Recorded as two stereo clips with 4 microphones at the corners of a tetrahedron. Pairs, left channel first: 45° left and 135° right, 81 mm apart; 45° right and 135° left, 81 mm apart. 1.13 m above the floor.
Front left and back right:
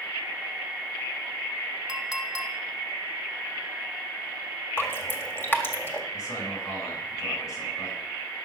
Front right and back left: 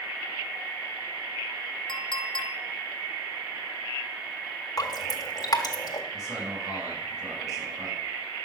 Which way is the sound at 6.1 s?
90° left.